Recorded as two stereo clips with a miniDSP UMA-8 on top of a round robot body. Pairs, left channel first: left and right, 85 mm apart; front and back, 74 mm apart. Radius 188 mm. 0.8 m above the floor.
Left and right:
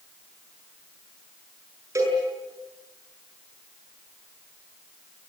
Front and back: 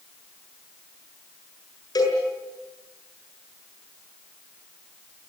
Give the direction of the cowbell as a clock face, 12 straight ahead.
1 o'clock.